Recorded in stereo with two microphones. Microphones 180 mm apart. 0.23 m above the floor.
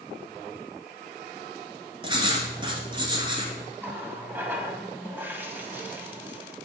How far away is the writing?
About 1.5 m.